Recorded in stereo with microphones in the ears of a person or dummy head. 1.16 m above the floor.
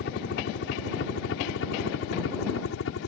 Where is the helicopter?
50° left (ahead or behind); by 3.1 s 65° left (ahead or behind).